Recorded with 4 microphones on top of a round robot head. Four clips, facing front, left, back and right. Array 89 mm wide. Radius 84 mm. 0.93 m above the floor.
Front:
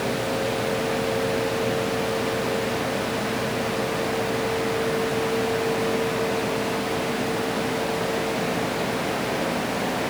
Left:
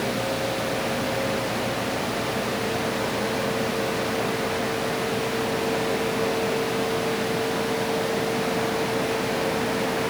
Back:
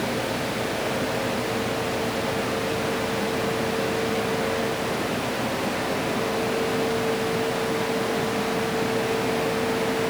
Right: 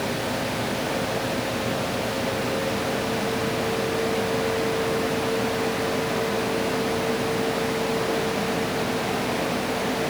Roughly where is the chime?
I don't hear a chime.